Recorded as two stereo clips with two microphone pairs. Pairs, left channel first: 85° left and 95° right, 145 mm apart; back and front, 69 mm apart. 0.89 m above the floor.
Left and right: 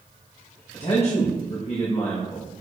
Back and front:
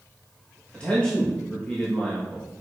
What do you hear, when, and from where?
0.7 s a man speaking: 115° left, 1.1 m